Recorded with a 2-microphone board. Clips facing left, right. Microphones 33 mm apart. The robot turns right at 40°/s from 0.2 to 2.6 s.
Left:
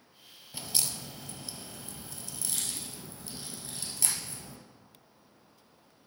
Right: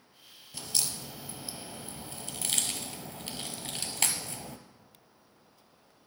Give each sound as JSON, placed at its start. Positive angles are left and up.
{"t": 0.5, "sound": "a crack", "side_deg": 15, "distance_m": 1.0}